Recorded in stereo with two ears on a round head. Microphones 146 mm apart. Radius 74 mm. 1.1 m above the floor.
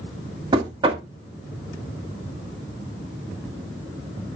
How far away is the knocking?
About 1.8 m.